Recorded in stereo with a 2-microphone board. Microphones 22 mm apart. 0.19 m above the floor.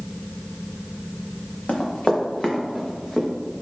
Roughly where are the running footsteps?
Left.